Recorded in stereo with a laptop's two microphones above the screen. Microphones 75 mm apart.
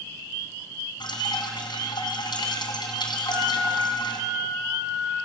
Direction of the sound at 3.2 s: 60° right (ahead or behind).